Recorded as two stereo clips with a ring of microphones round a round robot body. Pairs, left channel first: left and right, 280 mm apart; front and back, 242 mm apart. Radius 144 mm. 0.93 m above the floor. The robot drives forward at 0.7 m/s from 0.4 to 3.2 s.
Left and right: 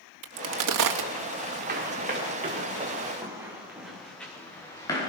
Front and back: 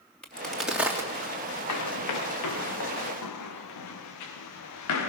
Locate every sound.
0.2 s a crack: 85° right, 2 m; by 1.1 s 100° right, 2 m
1.7 s running footsteps: 30° right, 6.5 m; by 5.1 s 15° left, 7 m